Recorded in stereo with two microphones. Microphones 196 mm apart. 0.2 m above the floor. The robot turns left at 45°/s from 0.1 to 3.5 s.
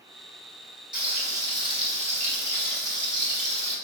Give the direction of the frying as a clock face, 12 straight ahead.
12 o'clock.